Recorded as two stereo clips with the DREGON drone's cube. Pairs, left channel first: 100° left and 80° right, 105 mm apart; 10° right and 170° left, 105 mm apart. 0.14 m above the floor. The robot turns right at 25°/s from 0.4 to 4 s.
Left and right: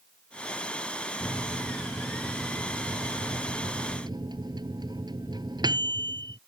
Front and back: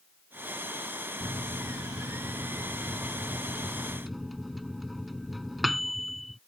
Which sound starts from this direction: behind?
A microwave, at 1.2 s.